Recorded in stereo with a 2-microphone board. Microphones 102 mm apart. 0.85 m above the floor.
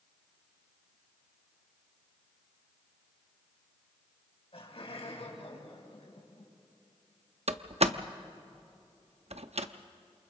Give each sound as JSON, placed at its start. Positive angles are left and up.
{"t": 4.5, "sound": "laughter", "side_deg": 65, "distance_m": 4.5}
{"t": 7.5, "sound": "a door slam", "side_deg": -80, "distance_m": 0.7}